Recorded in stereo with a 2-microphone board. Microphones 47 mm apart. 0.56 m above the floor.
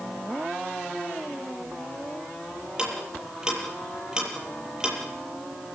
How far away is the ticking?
About 7.5 m.